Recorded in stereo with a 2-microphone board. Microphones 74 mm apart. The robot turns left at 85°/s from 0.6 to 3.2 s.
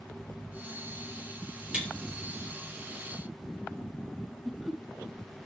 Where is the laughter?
5° right (ahead or behind), 0.7 m.